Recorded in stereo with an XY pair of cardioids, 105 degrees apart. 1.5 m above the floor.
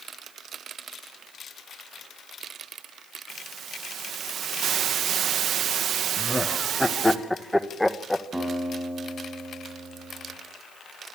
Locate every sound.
3.3 s a hiss: 60° right, 1.9 m
6.2 s laughter: 10° left, 1.8 m
8.3 s a guitar: 10° right, 6.5 m